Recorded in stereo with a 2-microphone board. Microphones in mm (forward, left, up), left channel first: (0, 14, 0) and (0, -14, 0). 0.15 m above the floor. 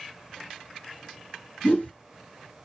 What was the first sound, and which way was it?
A whoosh, 40° left (ahead or behind).